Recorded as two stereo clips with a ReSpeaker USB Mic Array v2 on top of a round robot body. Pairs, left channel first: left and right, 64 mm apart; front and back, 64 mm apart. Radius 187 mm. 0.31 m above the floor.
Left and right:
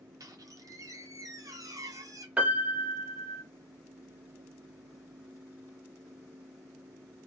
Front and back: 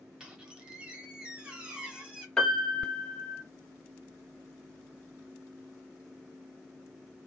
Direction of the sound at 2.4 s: 60° right.